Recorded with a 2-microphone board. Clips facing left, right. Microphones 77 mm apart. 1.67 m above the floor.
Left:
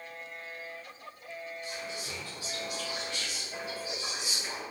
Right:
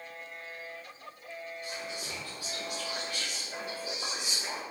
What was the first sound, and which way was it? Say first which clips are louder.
Whispering: even; 50° right (ahead or behind).